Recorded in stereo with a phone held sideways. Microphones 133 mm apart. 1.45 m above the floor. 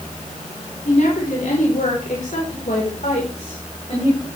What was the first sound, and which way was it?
A woman speaking, 85° left.